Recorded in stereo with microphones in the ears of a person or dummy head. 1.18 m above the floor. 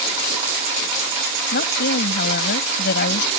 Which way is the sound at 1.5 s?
55° left (ahead or behind).